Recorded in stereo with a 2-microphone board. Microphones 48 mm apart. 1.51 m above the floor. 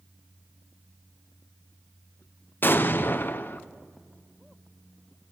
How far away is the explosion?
About 0.7 m.